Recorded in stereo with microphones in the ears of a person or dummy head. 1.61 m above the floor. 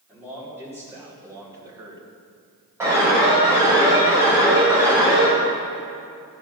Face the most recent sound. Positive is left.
turn(degrees=-15)  # may be behind; listen again after turning